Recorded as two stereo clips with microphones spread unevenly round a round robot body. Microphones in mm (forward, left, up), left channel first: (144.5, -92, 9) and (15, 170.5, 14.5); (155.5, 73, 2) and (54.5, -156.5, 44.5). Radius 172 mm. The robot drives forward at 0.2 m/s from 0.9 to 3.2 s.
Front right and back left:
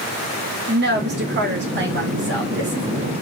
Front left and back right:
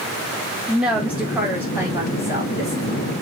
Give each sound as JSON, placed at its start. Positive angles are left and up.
{"t": 0.7, "sound": "a woman speaking", "azimuth_deg": 150, "distance_m": 0.7}